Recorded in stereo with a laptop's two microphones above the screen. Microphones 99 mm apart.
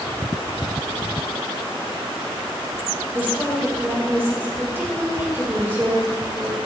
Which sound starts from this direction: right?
A woman speaking, at 3.1 s.